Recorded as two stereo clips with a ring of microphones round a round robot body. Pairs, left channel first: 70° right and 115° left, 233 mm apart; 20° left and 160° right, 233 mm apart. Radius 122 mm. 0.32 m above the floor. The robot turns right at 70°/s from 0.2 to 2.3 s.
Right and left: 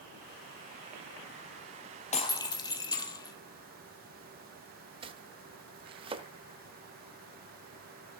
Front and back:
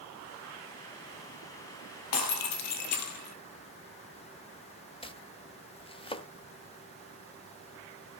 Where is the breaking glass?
5° right, 1.6 m; by 3.4 s 5° left, 1.6 m.